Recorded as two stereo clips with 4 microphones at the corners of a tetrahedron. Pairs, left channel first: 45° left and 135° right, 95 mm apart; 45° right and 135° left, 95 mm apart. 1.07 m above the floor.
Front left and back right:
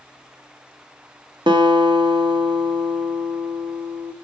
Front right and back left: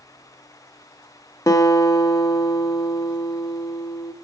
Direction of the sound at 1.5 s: 100° right.